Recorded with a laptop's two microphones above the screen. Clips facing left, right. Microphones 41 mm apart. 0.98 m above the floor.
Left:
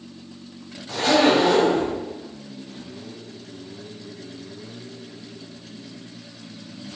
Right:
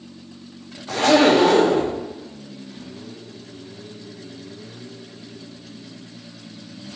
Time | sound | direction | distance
0.9 | a zipper | 70° right (ahead or behind) | 0.5 m